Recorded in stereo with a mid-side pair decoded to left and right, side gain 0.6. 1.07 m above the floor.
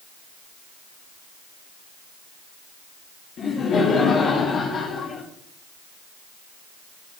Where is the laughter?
40° left, 1.9 m.